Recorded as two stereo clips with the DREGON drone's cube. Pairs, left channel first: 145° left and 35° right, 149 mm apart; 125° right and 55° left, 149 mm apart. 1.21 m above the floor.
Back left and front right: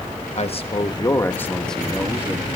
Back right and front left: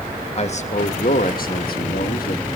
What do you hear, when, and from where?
0.3 s a man speaking: 170° right, 1.4 m; by 2.5 s 110° right, 1.6 m